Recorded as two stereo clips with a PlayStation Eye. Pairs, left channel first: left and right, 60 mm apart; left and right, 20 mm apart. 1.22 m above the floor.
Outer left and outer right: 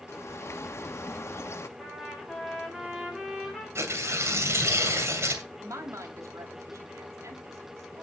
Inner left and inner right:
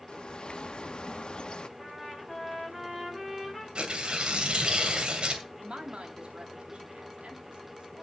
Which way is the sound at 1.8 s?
Centre (ahead or behind).